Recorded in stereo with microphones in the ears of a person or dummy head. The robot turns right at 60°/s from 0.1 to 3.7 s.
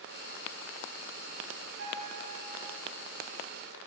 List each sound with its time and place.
1.8 s a piano: 110° right, 3 m; by 2.6 s 60° right, 3 m